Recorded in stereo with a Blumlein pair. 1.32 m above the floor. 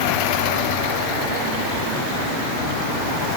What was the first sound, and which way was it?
Only background noise.